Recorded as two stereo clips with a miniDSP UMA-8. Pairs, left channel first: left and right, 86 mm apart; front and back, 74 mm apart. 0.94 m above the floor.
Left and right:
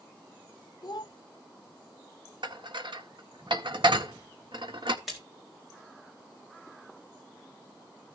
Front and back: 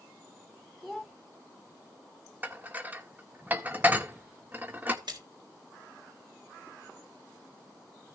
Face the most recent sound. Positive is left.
turn(degrees=180)